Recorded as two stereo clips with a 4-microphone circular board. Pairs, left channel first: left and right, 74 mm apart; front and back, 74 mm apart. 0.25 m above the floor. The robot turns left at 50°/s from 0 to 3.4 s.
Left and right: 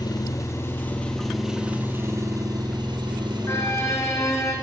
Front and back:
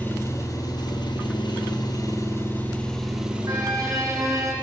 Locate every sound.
0.0 s an engine running: 65° left, 4 m; by 4.6 s 105° right, 4 m
3.5 s a violin: 140° left, 5.5 m